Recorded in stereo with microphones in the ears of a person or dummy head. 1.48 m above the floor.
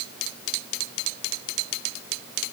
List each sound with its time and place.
Only background noise.